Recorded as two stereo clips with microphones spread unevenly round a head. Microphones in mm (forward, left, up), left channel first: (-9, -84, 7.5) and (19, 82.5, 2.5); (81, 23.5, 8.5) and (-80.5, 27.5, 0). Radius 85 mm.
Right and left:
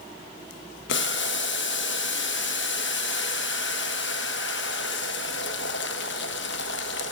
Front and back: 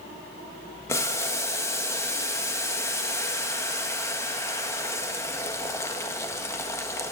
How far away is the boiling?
About 1.3 m.